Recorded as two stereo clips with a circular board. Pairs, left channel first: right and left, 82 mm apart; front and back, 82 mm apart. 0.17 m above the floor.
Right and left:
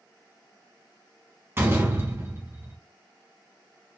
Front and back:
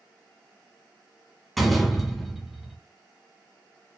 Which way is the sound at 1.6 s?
90° left.